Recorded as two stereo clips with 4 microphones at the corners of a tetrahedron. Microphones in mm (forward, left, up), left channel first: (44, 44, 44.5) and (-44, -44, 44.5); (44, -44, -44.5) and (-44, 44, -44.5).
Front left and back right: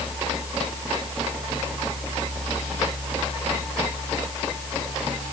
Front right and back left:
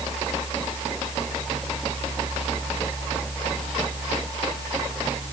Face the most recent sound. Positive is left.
No sound to turn to.